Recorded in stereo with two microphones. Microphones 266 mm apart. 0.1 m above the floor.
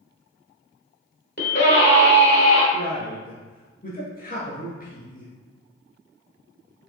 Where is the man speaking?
35° left (ahead or behind), 1.7 m.